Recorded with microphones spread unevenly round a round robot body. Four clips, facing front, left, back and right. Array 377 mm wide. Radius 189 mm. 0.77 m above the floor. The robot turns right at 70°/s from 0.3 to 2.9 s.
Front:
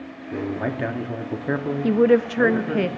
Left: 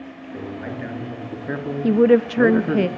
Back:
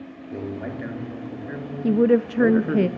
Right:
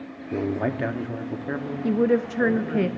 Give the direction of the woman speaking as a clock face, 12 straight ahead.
10 o'clock.